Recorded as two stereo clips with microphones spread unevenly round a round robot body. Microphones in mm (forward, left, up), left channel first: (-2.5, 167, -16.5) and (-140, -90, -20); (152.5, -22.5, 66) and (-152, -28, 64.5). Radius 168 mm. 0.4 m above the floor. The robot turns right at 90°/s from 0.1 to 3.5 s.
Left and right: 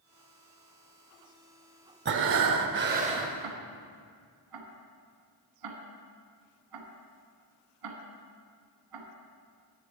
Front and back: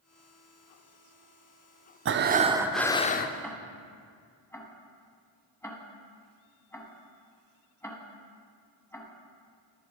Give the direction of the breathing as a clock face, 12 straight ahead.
5 o'clock.